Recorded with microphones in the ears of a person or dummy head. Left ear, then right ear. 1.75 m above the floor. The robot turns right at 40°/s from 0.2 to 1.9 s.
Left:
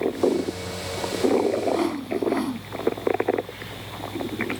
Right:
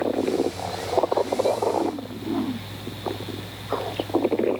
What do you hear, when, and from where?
1.7 s a whoosh: 60° left (ahead or behind); by 2.7 s 65° left (ahead or behind)